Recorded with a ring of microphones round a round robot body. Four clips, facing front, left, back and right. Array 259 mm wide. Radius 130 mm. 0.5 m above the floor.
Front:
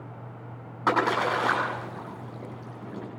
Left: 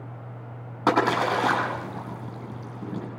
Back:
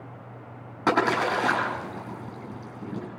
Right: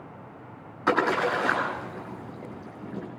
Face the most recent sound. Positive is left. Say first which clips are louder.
# left 2 dB, back 1 dB
turn(degrees=120)